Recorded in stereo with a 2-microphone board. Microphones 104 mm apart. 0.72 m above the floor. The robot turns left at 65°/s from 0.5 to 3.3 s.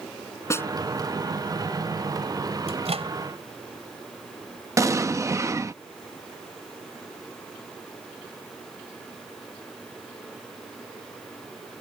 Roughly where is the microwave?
Right.